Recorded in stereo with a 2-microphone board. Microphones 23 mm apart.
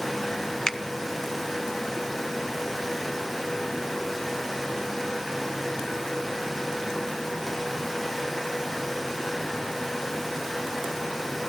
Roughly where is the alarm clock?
No alarm clock in this recording.